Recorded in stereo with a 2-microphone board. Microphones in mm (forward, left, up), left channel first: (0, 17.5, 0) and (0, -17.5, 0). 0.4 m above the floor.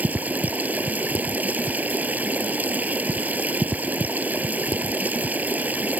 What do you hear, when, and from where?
0.0 s running water: 55° right (ahead or behind)